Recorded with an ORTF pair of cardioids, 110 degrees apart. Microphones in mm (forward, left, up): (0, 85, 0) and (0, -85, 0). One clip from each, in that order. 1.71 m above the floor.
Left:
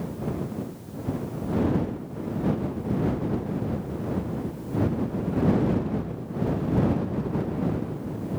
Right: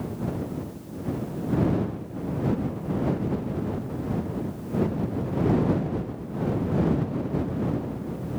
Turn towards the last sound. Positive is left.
No sound to turn to.